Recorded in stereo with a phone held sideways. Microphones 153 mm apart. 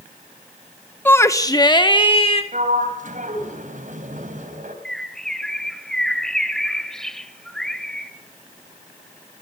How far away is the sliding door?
About 4 m.